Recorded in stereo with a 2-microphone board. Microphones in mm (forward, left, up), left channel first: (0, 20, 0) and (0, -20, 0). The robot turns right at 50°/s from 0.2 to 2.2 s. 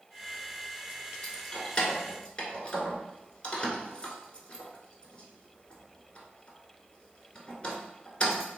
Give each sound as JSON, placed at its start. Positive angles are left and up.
{"t": 1.2, "sound": "keys jangling", "side_deg": 25, "distance_m": 0.9}